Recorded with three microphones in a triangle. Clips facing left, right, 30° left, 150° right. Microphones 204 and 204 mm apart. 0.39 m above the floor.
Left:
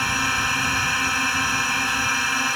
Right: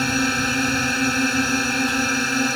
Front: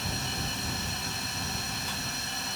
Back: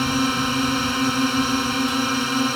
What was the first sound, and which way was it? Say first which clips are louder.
A drone: right 9 dB, back 16 dB; 140° right.